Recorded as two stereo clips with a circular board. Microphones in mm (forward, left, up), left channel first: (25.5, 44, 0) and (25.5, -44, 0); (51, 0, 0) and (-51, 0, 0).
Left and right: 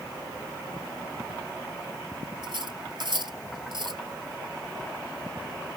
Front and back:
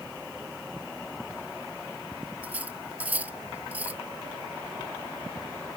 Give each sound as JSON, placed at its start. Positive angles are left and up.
{"t": 2.4, "sound": "cutlery clinking", "azimuth_deg": -105}